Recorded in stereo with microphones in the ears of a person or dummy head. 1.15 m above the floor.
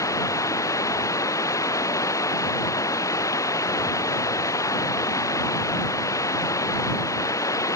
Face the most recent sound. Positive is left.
turn(degrees=15)  # may be behind; listen again after turning